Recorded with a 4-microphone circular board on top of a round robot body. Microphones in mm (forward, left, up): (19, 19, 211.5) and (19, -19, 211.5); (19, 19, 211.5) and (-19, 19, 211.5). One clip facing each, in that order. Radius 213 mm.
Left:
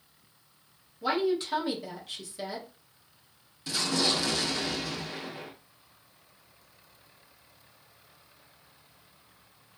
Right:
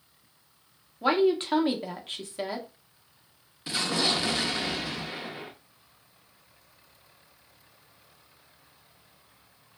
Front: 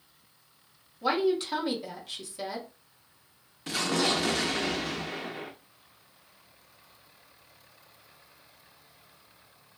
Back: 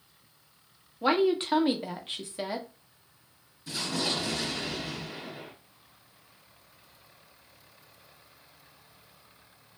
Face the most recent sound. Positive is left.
turn(degrees=-25)